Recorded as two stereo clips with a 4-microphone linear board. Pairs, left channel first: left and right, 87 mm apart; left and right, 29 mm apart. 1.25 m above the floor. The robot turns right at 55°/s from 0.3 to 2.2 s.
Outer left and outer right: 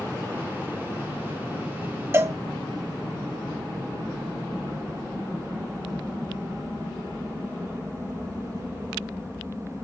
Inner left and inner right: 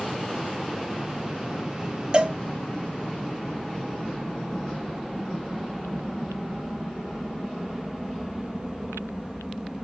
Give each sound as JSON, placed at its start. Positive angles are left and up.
{"t": 2.1, "sound": "a cowbell", "side_deg": -25, "distance_m": 0.6}